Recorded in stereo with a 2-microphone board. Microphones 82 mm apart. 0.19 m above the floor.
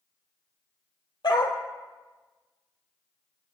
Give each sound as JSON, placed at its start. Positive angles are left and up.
{"t": 1.2, "sound": "a dog barking", "side_deg": 60, "distance_m": 1.7}